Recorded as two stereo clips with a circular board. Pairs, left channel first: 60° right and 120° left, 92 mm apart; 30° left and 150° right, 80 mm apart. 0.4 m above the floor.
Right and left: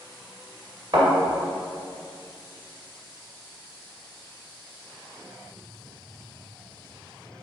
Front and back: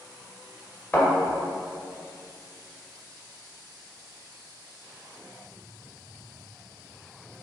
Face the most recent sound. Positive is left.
turn(degrees=95)